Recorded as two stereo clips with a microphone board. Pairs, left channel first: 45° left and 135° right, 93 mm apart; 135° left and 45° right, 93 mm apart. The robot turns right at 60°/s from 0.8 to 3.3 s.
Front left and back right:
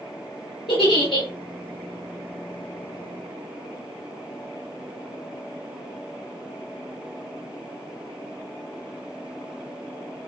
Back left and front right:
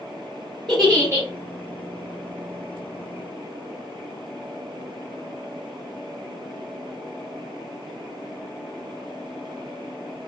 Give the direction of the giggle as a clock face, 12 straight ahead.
10 o'clock.